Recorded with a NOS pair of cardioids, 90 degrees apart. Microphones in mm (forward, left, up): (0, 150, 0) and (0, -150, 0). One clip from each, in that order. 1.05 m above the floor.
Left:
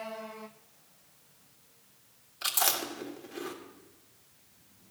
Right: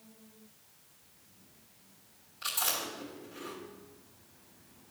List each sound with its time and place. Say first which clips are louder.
2.4 s chewing: left 4 dB; 60° left, 1.7 m